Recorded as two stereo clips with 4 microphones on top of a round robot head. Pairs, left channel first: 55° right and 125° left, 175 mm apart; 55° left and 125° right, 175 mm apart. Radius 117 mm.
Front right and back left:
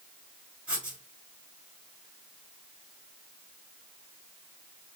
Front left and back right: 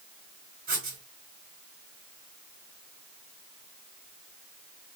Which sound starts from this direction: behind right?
Writing, at 0.7 s.